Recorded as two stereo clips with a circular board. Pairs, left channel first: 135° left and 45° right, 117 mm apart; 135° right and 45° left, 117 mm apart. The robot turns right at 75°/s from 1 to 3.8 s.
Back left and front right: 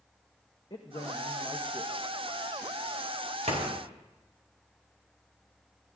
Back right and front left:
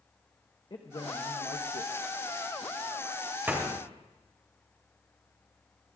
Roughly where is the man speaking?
Behind.